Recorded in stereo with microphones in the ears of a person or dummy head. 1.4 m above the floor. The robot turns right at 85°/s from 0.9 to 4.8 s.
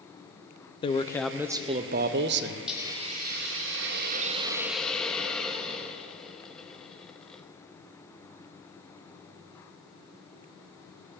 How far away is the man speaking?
About 0.6 m.